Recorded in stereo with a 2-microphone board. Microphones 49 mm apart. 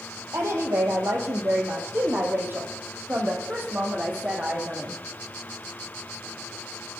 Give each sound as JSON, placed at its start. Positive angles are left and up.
{"t": 0.3, "sound": "a woman speaking", "side_deg": -60, "distance_m": 4.5}